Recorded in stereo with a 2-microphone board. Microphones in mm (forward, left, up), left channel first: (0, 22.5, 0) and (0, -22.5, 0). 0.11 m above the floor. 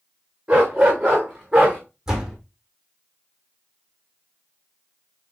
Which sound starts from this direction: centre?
A door slam, at 2.1 s.